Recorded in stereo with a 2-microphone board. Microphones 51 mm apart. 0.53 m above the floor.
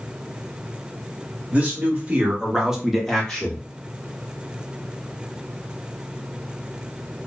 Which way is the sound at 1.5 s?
25° right (ahead or behind).